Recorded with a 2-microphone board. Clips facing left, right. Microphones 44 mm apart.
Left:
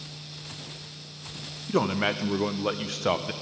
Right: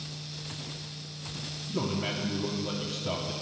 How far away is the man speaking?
About 0.7 m.